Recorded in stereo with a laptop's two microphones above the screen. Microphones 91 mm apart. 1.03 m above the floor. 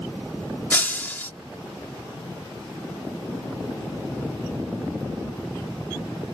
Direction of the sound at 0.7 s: 20° left (ahead or behind).